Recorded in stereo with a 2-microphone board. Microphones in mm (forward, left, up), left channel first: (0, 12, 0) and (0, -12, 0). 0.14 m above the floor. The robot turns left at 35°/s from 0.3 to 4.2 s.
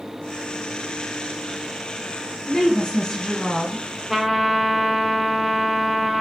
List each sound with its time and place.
2.5 s a woman speaking: 20° left (ahead or behind), 1.5 m; by 3.8 s 30° left (ahead or behind), 1.5 m
4.1 s a trumpet: 10° right (ahead or behind), 0.5 m